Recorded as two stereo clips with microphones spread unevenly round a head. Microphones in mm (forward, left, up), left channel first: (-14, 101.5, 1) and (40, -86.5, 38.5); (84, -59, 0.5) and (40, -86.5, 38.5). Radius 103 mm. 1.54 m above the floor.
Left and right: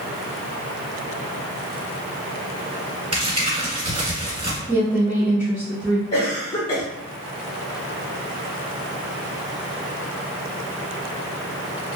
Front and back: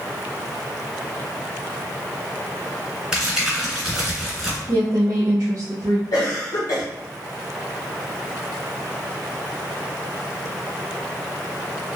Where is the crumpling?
115° right, 1.8 m.